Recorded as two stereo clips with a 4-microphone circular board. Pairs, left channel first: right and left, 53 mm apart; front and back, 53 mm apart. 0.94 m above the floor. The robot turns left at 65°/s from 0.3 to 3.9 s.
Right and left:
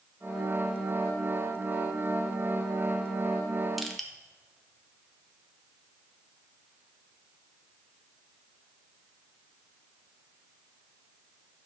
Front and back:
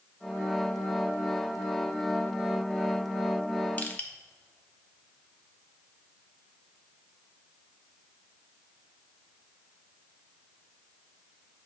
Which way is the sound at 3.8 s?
5° left.